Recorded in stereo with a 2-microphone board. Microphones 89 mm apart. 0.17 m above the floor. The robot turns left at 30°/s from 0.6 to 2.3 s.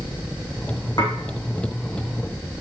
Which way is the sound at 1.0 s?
50° left (ahead or behind).